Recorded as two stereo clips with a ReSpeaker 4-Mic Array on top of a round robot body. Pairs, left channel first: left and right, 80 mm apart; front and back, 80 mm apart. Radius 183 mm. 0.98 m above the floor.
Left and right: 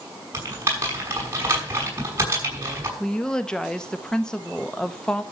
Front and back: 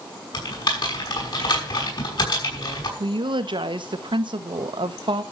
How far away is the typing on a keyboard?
About 6 m.